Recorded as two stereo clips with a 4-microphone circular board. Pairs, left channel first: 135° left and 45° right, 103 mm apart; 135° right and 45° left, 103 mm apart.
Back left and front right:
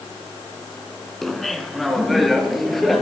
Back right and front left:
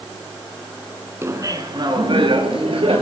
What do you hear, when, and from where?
1.2 s laughter: 50° left, 1.1 m; by 3.0 s 45° left, 2.5 m